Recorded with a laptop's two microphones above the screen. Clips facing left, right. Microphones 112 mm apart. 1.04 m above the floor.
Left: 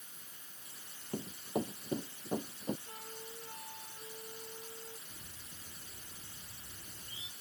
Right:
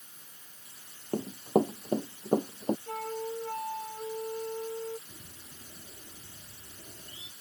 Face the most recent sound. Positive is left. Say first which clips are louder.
# right 3 dB
turn(degrees=-60)  # may be behind; listen again after turning